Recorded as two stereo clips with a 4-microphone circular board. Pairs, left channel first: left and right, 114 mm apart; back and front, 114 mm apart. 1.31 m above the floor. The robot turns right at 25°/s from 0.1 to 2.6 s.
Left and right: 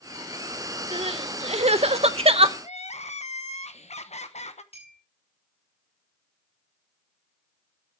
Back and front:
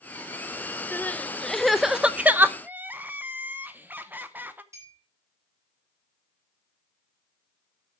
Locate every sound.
0.9 s crying: 110° right, 0.6 m; by 2.5 s 70° right, 0.6 m
2.6 s crying: 75° left, 0.9 m
4.7 s a clink: 65° left, 7 m